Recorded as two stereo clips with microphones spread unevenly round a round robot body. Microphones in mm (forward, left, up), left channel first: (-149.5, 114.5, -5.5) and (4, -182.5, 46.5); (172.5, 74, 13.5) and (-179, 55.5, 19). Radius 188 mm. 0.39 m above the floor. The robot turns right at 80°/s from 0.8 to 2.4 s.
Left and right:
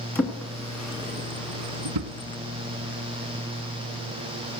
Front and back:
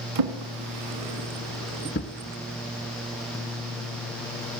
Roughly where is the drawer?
Behind.